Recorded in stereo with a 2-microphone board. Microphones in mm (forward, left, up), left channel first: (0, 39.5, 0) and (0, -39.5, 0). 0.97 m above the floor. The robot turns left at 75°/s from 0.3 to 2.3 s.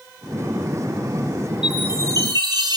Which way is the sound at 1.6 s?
10° right.